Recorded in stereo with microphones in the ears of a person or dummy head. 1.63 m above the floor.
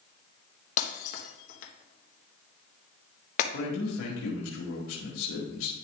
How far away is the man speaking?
About 1.8 m.